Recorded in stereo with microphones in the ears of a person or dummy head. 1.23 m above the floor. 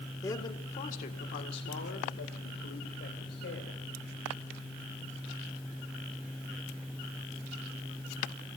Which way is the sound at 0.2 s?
20° left (ahead or behind).